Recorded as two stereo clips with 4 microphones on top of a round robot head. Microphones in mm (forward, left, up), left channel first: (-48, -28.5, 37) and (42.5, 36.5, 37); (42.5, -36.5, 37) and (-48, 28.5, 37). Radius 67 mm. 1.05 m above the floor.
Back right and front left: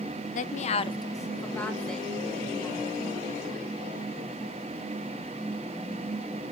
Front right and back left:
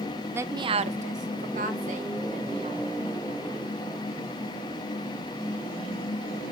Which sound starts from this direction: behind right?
A woman speaking, at 0.3 s.